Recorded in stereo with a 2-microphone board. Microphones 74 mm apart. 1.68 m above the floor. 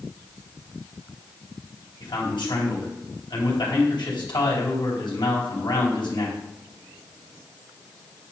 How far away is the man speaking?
About 4 m.